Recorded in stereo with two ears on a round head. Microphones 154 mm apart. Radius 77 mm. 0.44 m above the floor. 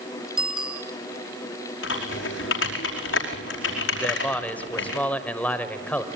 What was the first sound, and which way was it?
A bicycle bell, 5° right (ahead or behind).